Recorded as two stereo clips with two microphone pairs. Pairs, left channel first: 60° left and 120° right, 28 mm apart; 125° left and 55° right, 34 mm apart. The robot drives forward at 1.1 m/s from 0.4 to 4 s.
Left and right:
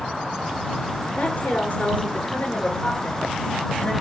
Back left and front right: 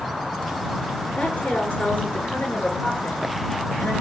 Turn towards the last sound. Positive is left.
turn(degrees=110)